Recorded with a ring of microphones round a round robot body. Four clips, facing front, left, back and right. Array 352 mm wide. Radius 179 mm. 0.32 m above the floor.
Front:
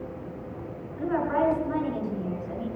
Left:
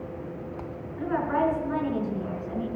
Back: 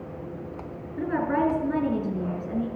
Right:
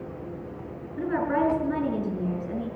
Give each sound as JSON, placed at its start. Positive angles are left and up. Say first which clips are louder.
{"t": 1.0, "sound": "a woman speaking", "louder": "right 1 dB, even", "azimuth_deg": -135, "distance_m": 5.5}